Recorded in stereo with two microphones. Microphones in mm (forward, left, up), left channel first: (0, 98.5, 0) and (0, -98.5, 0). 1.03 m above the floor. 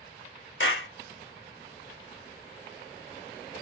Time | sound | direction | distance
0.6 | a clap | 80° left | 1.4 m